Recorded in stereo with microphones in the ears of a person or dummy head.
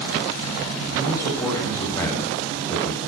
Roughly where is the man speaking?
Centre.